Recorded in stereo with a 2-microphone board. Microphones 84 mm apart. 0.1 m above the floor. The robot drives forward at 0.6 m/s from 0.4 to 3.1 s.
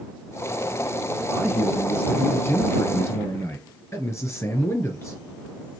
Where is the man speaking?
25° left (ahead or behind), 2 m; by 5.2 s 35° left (ahead or behind), 1.6 m.